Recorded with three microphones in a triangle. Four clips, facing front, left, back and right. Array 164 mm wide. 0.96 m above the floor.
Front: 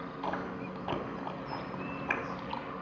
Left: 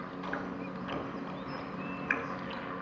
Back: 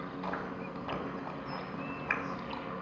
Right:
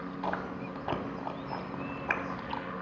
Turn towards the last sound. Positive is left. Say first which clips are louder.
# right 3 dB, front 3 dB
turn(degrees=-65)